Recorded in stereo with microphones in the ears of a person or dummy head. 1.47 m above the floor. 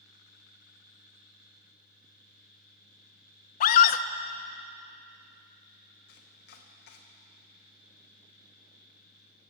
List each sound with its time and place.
0.0 s a fan: 50° left (ahead or behind), 2.5 m
3.6 s a scream: 55° left (ahead or behind), 0.7 m
6.1 s chopping: 55° left (ahead or behind), 1.1 m